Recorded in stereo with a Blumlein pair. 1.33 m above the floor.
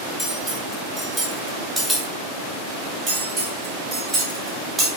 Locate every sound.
0.2 s cutlery clinking: straight ahead, 1.2 m
3.1 s cutlery clinking: 20° right, 1.4 m